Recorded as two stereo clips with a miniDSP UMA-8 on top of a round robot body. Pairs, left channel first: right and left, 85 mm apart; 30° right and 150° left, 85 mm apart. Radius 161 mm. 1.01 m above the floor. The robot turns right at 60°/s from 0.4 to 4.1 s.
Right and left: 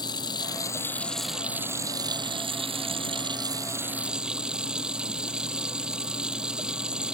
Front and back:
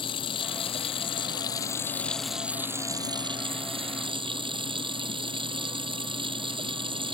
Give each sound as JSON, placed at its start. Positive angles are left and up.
{"t": 0.0, "sound": "running water", "azimuth_deg": -55}